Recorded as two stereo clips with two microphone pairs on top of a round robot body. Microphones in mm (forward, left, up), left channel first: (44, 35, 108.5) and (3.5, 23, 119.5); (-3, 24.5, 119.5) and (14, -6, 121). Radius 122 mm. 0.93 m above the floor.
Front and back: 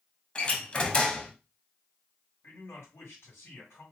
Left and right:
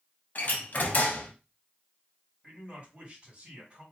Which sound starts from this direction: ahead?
A man speaking, at 2.4 s.